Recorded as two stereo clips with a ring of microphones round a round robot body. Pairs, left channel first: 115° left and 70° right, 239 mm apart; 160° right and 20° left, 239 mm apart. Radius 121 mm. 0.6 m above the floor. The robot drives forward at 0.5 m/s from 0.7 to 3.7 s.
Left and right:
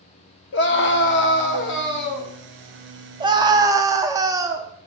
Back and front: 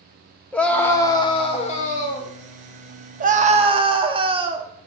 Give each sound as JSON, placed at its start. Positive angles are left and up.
{"t": 0.5, "sound": "a scream", "azimuth_deg": 120, "distance_m": 1.0}
{"t": 3.2, "sound": "a scream", "azimuth_deg": -5, "distance_m": 1.0}